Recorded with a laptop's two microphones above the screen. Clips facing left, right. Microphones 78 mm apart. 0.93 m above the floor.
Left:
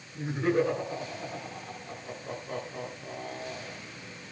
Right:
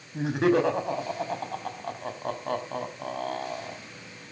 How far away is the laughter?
About 5.5 m.